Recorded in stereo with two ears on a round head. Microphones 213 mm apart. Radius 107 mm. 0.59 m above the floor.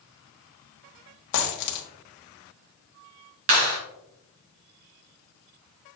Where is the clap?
55° right (ahead or behind), 3 m.